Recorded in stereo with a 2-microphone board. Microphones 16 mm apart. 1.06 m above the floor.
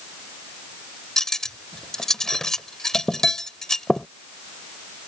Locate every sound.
1.2 s cutlery clinking: 35° left (ahead or behind)